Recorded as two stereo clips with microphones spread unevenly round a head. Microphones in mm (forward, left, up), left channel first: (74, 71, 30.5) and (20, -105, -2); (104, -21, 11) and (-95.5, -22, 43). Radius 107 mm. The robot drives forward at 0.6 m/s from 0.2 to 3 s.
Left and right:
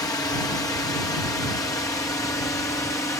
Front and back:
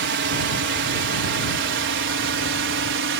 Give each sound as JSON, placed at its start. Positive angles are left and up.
{"t": 0.0, "sound": "a drone", "azimuth_deg": 150}